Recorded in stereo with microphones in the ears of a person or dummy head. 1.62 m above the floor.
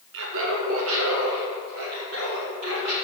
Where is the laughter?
65° right (ahead or behind), 1.2 m; by 2.9 s 90° right, 4.5 m.